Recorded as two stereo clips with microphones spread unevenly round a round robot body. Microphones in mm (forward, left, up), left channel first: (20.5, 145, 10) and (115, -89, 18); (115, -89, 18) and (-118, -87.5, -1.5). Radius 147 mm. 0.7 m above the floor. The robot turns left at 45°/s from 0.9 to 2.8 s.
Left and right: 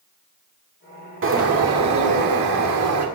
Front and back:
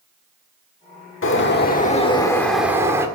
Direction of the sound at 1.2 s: 30° right.